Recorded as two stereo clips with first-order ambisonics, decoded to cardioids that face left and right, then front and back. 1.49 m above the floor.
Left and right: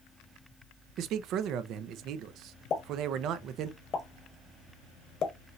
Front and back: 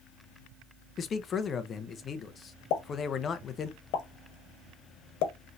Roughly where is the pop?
Ahead left.